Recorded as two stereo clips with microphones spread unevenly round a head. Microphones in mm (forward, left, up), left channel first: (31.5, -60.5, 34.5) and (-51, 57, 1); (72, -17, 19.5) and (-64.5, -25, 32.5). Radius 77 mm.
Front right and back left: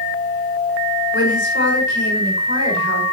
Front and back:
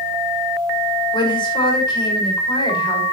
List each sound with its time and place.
1.1 s a woman speaking: 55° right, 6.5 m